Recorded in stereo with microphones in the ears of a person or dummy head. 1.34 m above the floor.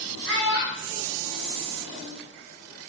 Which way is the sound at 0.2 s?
65° right (ahead or behind).